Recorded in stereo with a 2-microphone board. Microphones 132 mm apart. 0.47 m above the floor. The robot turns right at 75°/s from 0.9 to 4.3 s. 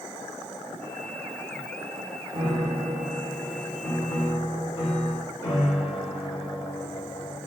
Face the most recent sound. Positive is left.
turn(degrees=55)